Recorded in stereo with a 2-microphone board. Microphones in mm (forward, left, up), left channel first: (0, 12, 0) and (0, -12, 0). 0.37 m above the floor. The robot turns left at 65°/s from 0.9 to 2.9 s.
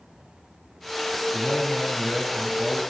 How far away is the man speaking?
About 5 m.